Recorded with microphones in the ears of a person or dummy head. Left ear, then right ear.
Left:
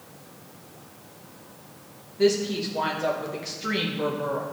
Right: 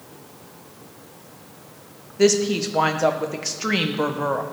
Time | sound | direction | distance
2.2 | a woman speaking | 40° right (ahead or behind) | 0.6 m